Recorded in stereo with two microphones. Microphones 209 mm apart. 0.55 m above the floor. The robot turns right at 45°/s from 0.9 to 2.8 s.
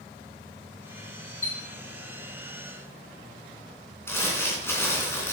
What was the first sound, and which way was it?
A chime, 15° left (ahead or behind).